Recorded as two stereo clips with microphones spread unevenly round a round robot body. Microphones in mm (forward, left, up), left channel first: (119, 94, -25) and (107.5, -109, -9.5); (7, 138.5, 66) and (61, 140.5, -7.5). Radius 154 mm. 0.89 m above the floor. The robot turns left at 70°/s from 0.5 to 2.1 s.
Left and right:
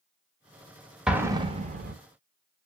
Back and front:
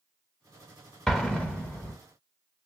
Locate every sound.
1.1 s an explosion: straight ahead, 0.7 m; by 1.9 s 65° right, 0.7 m